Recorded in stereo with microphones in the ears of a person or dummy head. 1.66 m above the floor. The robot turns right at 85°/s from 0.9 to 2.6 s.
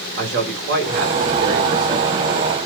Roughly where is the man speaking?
Behind right.